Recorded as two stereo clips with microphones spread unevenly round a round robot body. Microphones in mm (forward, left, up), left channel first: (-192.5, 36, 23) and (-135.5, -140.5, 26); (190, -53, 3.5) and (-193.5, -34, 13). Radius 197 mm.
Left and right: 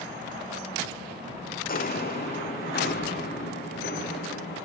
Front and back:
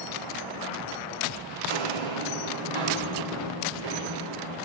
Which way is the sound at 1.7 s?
150° left.